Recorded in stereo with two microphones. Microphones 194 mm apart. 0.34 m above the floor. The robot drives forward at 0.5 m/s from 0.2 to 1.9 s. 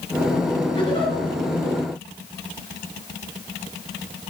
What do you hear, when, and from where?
0.8 s a giggle: 25° left (ahead or behind), 5 m